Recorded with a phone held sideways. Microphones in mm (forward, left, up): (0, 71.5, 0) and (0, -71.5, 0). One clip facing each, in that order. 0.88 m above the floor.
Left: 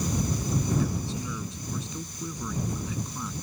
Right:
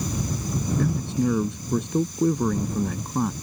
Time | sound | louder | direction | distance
0.8 | a man speaking | right 7 dB | 60° right (ahead or behind) | ?